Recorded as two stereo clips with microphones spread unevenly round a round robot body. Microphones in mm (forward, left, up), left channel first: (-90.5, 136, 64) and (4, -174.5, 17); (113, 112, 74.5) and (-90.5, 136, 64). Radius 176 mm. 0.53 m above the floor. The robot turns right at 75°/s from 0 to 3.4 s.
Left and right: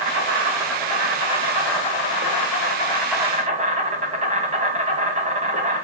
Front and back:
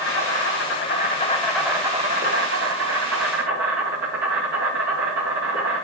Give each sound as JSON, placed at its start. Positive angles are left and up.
{"t": 0.0, "sound": "an insect", "azimuth_deg": -35, "distance_m": 1.9}